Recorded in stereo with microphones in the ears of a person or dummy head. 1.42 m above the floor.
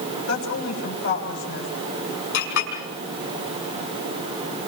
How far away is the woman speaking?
About 8.5 m.